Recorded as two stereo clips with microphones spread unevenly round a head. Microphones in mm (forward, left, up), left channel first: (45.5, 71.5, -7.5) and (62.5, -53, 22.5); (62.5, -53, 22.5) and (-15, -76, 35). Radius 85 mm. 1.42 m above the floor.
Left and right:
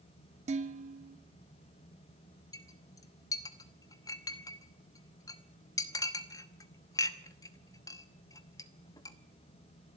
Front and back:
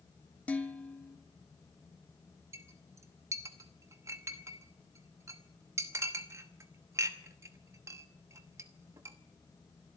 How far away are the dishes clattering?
About 1.9 m.